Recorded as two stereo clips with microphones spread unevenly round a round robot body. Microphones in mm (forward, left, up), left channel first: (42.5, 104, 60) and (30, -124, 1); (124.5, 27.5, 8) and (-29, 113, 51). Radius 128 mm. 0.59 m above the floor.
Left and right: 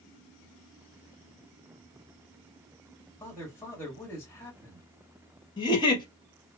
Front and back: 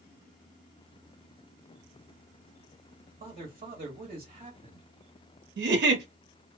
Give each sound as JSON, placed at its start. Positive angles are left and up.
{"t": 3.2, "sound": "a man speaking", "azimuth_deg": -170, "distance_m": 1.3}
{"t": 5.6, "sound": "a giggle", "azimuth_deg": 165, "distance_m": 0.7}